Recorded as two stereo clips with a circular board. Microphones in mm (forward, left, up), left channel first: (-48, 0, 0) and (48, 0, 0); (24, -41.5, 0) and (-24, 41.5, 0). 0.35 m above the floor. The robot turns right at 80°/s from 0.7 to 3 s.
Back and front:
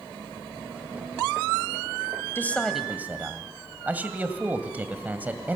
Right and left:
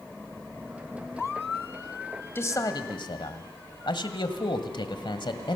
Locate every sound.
2.4 s a man speaking: 120° right, 1.6 m; by 5.6 s 70° right, 1.6 m